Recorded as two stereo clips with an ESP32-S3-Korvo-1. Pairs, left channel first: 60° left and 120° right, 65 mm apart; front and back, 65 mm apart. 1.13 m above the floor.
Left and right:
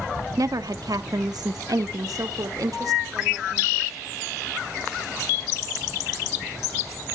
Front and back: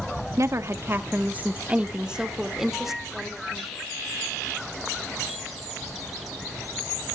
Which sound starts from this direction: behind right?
A woman speaking, at 0.4 s.